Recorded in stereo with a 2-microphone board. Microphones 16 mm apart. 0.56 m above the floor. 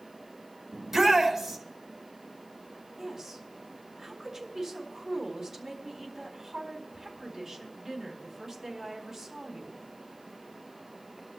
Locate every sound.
0.7 s a shout: 20° right (ahead or behind), 4.5 m
3.0 s a woman speaking: 15° right (ahead or behind), 4.5 m